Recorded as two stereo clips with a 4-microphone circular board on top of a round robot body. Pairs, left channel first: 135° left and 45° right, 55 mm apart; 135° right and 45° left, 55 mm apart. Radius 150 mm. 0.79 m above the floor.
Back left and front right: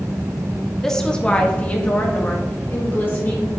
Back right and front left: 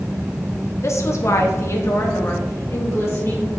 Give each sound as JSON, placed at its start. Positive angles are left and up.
{"t": 0.8, "sound": "a woman speaking", "azimuth_deg": -145, "distance_m": 1.5}